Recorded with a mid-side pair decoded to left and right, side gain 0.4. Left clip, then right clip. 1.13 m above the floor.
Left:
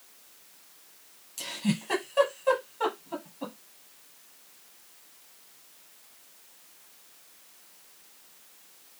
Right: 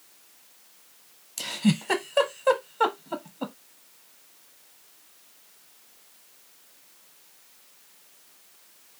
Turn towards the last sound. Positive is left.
turn(degrees=-60)